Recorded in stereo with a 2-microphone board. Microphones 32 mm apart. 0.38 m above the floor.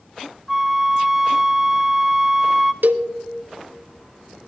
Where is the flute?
10° right (ahead or behind), 0.5 m.